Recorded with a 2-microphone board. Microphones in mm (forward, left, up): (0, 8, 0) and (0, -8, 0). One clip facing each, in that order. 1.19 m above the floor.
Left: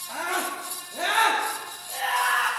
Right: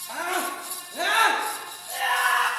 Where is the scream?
30° right (ahead or behind), 2.5 m; by 2.5 s 55° right (ahead or behind), 3 m.